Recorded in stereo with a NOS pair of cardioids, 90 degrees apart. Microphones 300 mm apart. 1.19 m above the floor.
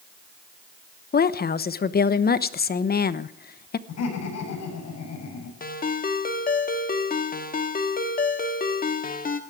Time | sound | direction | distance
1.1 | a woman speaking | 35° left | 1.0 m
3.9 | laughter | 60° left | 8 m
5.6 | a ringtone | 30° left | 1.6 m